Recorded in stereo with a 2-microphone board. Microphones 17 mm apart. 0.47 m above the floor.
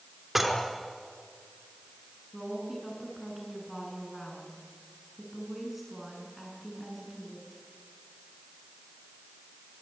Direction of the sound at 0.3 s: 15° right (ahead or behind).